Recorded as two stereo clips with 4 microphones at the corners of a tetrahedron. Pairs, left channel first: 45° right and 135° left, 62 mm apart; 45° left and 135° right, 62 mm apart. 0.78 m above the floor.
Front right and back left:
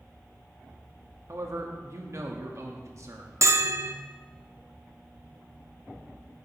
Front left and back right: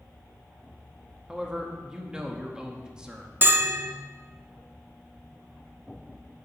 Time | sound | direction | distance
1.3 | a man speaking | 150° left | 1.3 m
3.4 | a bell | 170° left | 0.6 m